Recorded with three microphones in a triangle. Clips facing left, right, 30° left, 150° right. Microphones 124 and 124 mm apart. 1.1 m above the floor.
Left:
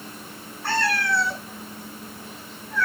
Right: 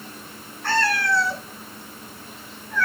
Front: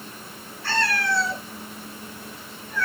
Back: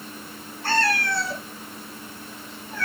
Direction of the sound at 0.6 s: 170° left.